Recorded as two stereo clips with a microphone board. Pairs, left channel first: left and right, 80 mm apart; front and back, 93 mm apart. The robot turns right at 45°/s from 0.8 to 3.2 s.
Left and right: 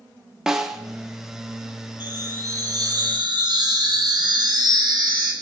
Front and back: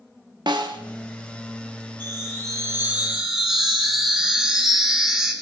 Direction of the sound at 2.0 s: 150° right.